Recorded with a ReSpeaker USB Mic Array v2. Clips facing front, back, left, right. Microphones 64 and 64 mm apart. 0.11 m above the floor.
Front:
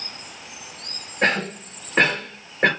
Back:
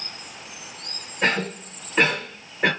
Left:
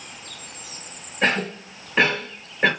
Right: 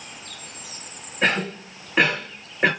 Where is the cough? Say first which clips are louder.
Front 2 dB, even; 5° right, 2.5 m.